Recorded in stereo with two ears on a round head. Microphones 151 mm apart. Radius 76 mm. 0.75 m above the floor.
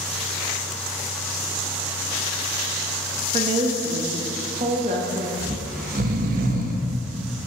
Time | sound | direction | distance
3.3 | a woman speaking | 35° right (ahead or behind) | 0.6 m
5.4 | snoring | 50° right (ahead or behind) | 0.5 m